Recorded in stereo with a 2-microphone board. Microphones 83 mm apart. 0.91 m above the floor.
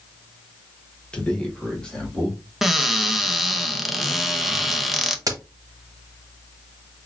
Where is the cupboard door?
5° right (ahead or behind), 0.7 m.